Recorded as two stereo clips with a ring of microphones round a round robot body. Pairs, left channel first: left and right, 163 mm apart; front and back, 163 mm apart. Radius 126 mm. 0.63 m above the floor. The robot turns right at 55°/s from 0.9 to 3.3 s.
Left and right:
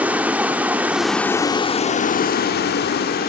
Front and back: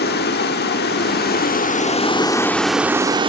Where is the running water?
10° right, 0.9 m; by 3.3 s 125° left, 0.9 m.